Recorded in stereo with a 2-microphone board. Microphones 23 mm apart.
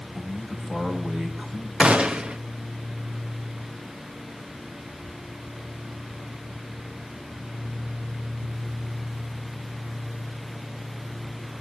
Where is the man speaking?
85° right, 7 m.